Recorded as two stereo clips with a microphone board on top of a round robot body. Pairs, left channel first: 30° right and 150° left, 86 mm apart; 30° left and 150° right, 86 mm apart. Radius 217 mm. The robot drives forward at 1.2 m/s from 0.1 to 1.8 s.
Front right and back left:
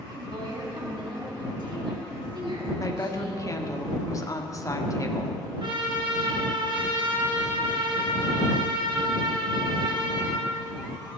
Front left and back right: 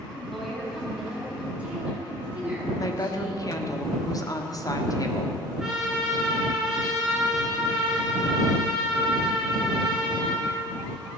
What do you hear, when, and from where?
0.1 s a woman speaking: 115° left, 4 m; by 3.4 s 135° left, 5.5 m
2.8 s a woman speaking: 5° left, 1.9 m
5.6 s a trumpet: 125° left, 3.5 m